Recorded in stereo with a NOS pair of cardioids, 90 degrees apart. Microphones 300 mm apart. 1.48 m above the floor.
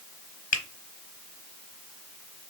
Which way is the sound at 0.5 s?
25° left.